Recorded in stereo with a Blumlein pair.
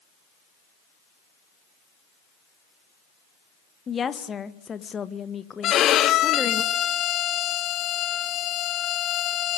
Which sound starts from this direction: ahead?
A woman speaking, at 3.9 s.